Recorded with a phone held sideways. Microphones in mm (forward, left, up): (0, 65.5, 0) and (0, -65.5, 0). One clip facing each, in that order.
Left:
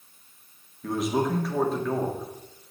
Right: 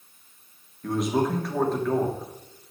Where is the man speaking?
5° left (ahead or behind), 2.5 m.